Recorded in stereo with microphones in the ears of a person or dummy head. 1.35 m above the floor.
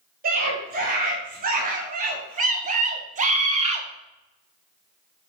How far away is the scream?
About 2.5 m.